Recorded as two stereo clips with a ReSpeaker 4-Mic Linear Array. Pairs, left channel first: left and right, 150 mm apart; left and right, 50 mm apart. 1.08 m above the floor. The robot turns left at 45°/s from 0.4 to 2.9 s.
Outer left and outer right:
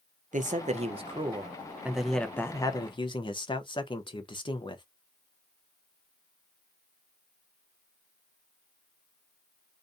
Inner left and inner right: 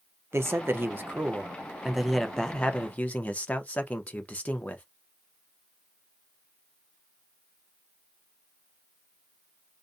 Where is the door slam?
I don't hear a door slam.